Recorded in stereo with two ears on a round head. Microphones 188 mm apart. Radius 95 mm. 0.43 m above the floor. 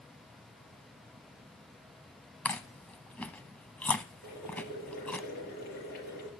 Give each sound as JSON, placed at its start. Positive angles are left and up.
{"t": 2.5, "sound": "chewing", "side_deg": 5, "distance_m": 0.6}
{"t": 4.2, "sound": "boiling", "side_deg": 50, "distance_m": 7.0}